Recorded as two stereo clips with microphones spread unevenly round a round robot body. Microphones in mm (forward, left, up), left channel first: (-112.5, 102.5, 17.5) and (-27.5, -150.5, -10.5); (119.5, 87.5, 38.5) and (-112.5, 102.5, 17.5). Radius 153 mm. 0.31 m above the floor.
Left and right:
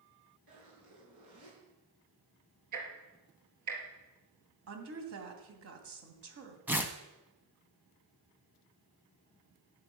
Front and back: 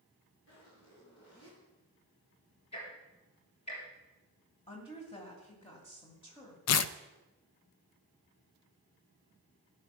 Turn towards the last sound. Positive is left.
turn(degrees=10)